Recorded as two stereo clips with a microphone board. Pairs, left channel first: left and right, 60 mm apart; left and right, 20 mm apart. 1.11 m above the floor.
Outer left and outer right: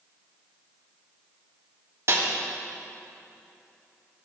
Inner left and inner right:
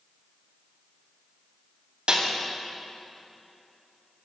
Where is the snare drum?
55° right (ahead or behind), 2.5 m.